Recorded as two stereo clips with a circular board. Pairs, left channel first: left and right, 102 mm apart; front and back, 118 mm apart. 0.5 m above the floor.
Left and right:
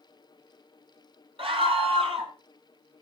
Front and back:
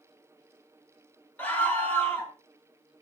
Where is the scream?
75° right, 3.5 m.